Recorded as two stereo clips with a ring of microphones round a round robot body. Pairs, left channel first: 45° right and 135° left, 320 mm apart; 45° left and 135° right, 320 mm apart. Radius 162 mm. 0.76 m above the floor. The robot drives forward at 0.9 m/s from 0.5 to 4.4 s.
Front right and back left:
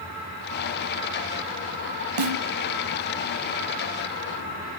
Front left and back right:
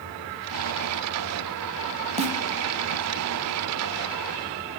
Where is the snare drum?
155° left, 1.1 m; by 2.4 s 160° left, 1.2 m.